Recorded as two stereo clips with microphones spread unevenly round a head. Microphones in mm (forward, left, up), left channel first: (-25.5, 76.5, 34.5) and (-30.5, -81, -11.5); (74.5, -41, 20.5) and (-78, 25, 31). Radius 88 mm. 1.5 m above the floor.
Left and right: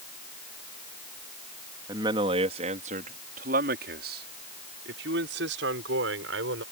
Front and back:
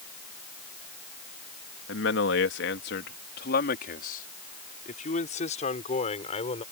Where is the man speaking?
20° right; by 6.6 s 80° right.